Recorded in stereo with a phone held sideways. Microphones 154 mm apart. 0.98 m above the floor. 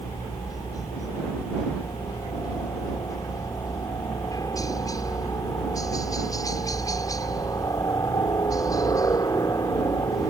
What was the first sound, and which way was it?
A helicopter, 25° left (ahead or behind).